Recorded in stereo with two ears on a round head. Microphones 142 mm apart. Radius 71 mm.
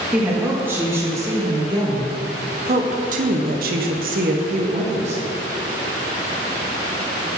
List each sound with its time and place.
0.1 s a woman speaking: 10° right (ahead or behind), 2 m; by 5.2 s 45° right (ahead or behind), 1.4 m